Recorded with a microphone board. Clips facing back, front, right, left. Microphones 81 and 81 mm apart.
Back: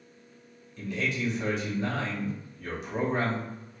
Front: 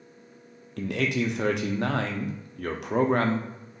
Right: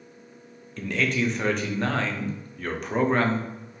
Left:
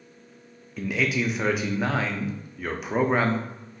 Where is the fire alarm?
I don't hear a fire alarm.